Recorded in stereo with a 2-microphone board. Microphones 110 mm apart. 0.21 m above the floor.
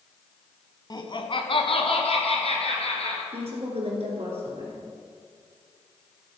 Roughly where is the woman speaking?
Right.